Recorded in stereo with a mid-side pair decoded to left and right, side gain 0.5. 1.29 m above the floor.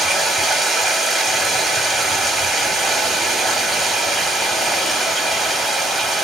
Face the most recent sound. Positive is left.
turn(degrees=-30)